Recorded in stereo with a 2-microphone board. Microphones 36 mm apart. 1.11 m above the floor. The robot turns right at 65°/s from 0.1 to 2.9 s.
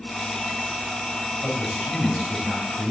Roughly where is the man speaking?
Behind.